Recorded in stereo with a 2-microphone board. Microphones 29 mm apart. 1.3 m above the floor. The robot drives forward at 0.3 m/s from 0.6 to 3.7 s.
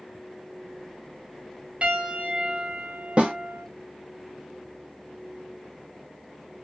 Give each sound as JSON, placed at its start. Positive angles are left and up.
{"t": 1.8, "sound": "a piano", "side_deg": -55, "distance_m": 0.9}
{"t": 3.2, "sound": "a snare drum", "side_deg": -40, "distance_m": 0.8}